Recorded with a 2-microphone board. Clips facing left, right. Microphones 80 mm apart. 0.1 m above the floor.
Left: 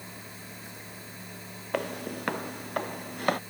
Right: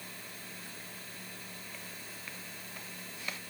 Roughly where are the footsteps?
Left.